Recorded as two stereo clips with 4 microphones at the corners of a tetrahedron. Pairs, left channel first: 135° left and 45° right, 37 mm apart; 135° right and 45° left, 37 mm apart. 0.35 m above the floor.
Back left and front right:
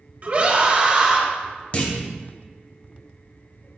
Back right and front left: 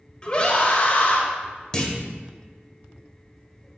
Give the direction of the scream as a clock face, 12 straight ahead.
3 o'clock.